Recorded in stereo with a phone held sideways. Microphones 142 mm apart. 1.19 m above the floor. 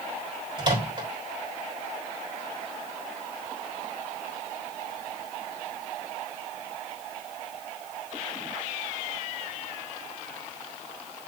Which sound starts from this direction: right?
A microwave, at 0.6 s.